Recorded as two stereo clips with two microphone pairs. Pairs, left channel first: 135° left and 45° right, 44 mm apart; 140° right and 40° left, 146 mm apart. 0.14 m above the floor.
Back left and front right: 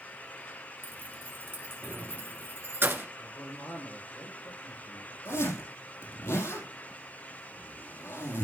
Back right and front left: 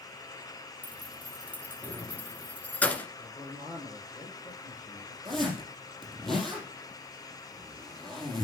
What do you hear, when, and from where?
0.8 s keys jangling: 60° right, 1.3 m
3.2 s a man speaking: 160° left, 6 m
5.2 s a zipper: 130° left, 4 m